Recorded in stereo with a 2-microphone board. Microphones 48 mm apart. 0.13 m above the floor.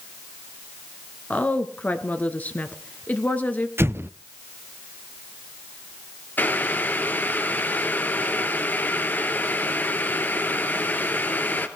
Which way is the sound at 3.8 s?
55° right (ahead or behind).